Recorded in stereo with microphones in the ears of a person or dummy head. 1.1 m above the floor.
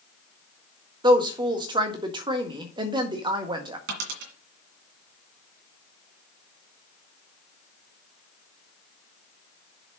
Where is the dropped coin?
65° right (ahead or behind), 1.9 m.